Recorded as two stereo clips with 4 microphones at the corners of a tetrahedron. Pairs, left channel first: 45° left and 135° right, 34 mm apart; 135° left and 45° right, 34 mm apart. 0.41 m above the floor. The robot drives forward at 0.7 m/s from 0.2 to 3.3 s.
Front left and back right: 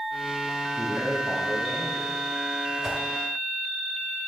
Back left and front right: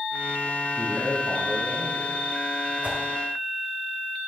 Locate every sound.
0.8 s a man speaking: 125° left, 2.5 m; by 2.2 s 140° left, 3 m
2.8 s a whoosh: 75° right, 2.0 m; by 3.0 s 80° right, 2.0 m